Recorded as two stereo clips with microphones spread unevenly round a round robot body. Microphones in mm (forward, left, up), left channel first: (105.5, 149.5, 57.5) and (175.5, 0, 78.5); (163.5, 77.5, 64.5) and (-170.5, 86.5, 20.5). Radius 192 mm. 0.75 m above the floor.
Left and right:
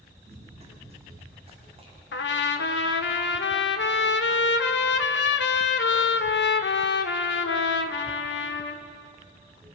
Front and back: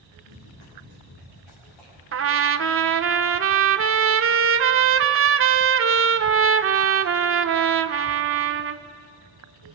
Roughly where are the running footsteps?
Ahead.